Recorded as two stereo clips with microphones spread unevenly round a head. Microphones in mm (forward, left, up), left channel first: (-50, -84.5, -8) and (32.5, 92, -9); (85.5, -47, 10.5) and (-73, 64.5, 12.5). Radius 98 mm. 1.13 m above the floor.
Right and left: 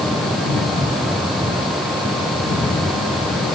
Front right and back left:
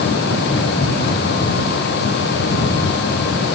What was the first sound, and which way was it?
Only background noise.